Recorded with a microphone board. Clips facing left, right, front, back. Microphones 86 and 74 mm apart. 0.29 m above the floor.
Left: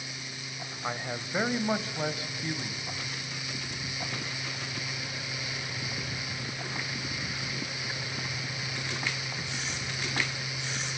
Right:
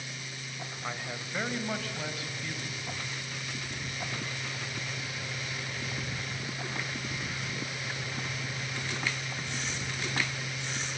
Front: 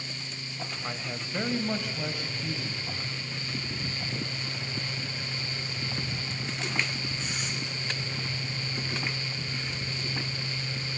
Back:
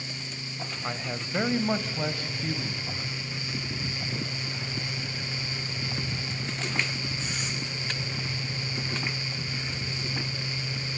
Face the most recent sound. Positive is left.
turn(degrees=150)